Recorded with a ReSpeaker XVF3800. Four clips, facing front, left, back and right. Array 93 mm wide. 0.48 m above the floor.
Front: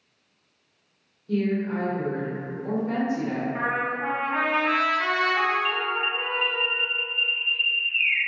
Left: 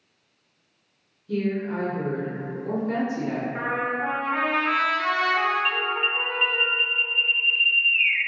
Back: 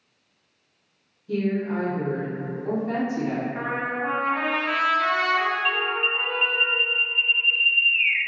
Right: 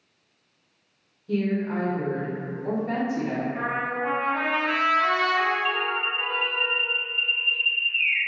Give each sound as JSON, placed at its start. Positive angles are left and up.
{"t": 1.3, "sound": "a woman speaking", "azimuth_deg": -90, "distance_m": 1.7}
{"t": 3.5, "sound": "a trumpet", "azimuth_deg": 50, "distance_m": 1.1}
{"t": 5.7, "sound": "an alarm", "azimuth_deg": 125, "distance_m": 0.6}